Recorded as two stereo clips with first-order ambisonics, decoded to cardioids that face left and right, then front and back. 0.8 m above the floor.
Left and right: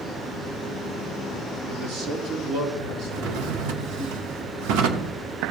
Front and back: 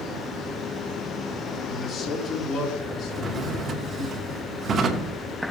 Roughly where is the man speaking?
Ahead right.